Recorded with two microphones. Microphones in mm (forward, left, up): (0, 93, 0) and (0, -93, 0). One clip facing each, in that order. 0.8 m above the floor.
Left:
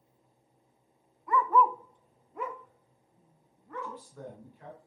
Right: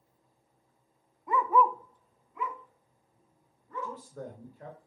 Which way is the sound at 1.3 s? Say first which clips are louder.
Even; 25° right (ahead or behind).